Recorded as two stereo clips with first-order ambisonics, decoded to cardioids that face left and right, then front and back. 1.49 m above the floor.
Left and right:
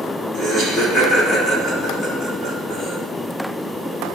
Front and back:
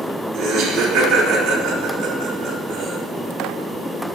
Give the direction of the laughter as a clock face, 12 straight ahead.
7 o'clock.